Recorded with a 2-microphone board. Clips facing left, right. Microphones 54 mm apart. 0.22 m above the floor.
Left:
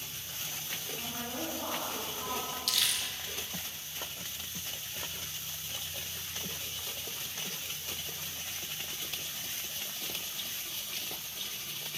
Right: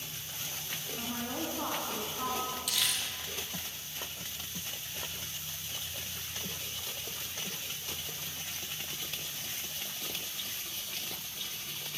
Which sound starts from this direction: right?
A woman speaking, at 1.0 s.